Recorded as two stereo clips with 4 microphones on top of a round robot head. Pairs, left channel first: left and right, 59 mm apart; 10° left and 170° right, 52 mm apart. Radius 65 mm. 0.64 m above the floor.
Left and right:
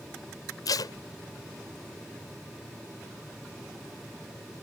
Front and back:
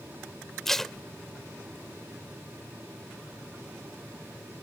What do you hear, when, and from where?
0.7 s tape being pulled: 95° left